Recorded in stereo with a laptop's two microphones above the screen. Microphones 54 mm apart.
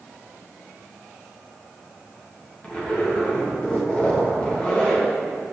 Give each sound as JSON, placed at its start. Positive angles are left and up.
{"t": 2.6, "sound": "a zipper", "side_deg": 25, "distance_m": 1.3}